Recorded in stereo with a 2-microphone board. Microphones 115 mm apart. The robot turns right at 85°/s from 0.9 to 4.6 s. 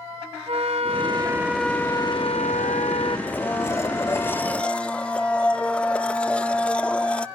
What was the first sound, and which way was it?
A flute, 60° right.